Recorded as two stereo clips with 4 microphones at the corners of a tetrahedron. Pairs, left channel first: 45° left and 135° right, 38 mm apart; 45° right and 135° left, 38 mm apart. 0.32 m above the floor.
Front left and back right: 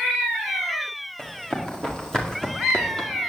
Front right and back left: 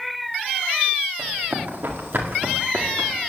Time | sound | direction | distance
1.2 | running footsteps | 115° left | 5.5 m